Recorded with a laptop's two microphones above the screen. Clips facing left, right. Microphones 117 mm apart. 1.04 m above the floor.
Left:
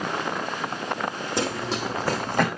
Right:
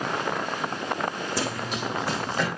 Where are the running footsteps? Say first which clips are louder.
Left 3 dB; 20° left (ahead or behind), 2 m; by 2.5 s 55° left (ahead or behind), 2 m.